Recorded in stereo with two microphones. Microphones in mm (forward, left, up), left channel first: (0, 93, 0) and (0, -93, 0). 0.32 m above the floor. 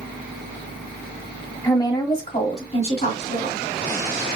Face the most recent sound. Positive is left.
turn(degrees=60)  # may be behind; listen again after turning